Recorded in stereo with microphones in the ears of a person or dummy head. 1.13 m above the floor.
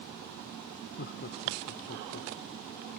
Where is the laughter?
50° left (ahead or behind).